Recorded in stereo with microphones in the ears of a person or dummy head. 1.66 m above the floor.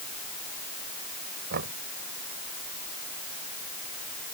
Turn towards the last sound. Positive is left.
turn(degrees=-55)  # may be behind; listen again after turning